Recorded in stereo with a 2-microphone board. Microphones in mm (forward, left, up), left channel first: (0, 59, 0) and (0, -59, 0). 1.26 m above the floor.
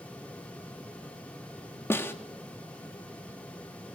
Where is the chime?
No chime in this recording.